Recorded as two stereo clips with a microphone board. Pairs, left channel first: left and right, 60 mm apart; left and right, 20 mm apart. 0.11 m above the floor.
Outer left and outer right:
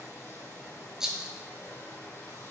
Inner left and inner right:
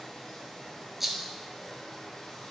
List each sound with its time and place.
0.0 s running water: 45° left (ahead or behind), 1.0 m
1.0 s a rattle: 10° right (ahead or behind), 0.5 m